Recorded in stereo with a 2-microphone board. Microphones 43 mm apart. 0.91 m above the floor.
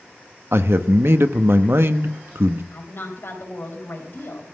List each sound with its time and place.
0.5 s a man speaking: 70° right (ahead or behind), 0.9 m
2.7 s a woman speaking: 65° left (ahead or behind), 4 m